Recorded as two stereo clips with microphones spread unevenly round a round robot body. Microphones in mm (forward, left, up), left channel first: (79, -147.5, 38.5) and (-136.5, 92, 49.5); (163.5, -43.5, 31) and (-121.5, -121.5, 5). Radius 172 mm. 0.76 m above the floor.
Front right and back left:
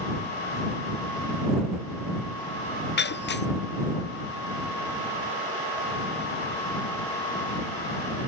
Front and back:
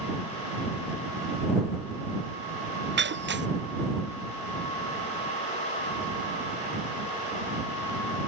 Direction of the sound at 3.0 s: 110° right.